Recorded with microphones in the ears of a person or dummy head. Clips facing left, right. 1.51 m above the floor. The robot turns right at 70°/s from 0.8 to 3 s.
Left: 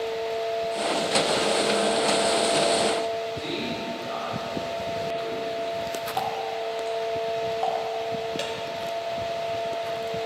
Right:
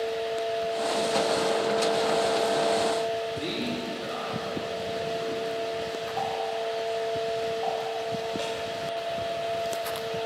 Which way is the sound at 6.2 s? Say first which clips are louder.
Even; 75° left (ahead or behind).